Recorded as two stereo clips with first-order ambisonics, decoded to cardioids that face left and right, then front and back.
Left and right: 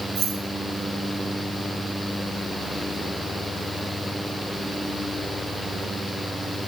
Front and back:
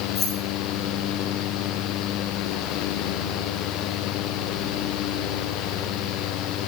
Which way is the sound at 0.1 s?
55° right.